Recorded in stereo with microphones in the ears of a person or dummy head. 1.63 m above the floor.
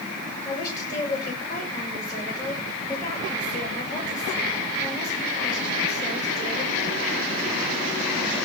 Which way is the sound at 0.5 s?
20° left (ahead or behind).